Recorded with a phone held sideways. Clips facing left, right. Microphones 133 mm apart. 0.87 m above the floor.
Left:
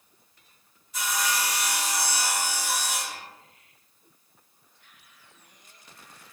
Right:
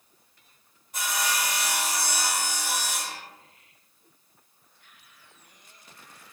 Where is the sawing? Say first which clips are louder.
Left 1 dB; 55° right (ahead or behind), 1.2 m.